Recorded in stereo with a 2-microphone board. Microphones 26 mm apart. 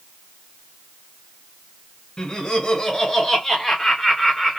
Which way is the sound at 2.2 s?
25° left (ahead or behind).